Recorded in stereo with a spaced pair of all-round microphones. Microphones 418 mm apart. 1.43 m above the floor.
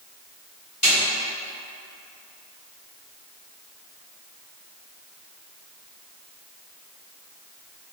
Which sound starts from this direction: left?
A snare drum, at 0.8 s.